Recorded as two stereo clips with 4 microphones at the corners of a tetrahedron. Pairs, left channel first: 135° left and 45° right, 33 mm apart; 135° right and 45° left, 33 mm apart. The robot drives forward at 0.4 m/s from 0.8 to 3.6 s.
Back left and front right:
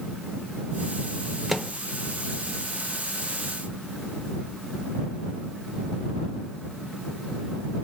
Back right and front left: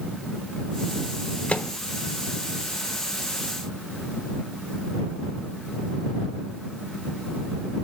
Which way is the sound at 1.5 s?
130° right.